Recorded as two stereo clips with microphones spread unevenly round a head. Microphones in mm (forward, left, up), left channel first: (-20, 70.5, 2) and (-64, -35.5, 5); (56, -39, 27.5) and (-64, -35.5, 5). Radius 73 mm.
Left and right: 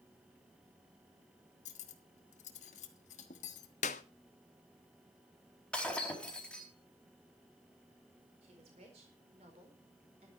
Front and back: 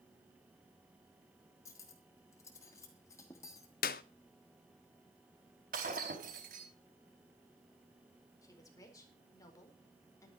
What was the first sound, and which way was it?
Cutlery clinking, 65° left.